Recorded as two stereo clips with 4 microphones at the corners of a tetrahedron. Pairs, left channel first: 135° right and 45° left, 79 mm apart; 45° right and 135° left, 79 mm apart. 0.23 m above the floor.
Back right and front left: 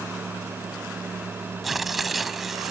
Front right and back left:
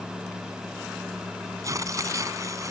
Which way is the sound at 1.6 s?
130° left.